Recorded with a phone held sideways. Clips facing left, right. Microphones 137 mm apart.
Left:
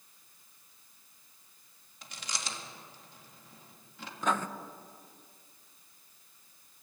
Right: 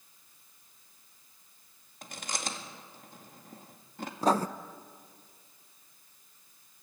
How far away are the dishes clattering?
No dishes clattering in this recording.